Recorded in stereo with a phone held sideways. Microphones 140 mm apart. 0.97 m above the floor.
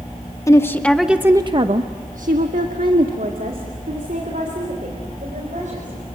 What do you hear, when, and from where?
0.5 s a woman speaking: 20° left (ahead or behind), 1.4 m; by 6.2 s 65° right (ahead or behind), 5.5 m